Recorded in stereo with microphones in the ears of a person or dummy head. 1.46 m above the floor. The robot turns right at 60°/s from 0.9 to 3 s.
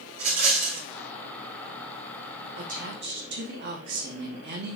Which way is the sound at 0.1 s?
55° right (ahead or behind).